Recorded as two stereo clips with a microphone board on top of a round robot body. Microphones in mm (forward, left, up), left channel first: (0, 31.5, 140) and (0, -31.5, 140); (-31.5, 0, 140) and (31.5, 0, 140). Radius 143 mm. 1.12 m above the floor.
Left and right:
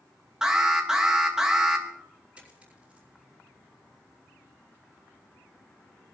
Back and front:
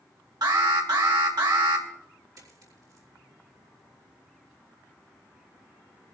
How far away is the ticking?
I don't hear ticking.